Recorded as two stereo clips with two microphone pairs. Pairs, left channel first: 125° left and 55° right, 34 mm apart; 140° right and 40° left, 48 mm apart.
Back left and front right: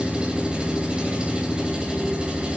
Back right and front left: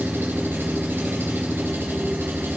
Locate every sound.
0.0 s an engine running: straight ahead, 3 m